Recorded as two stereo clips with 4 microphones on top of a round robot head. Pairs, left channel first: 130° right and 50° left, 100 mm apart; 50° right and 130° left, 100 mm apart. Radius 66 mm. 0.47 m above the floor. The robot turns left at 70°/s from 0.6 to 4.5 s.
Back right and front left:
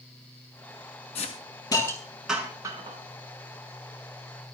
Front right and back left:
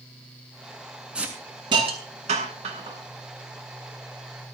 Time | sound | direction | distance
1.1 | a hiss | 145° right | 6.5 m